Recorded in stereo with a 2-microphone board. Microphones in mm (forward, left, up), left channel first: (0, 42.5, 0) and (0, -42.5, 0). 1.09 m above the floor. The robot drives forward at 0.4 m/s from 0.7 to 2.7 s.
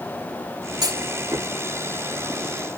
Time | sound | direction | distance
0.8 | a clunk | 55° right (ahead or behind) | ?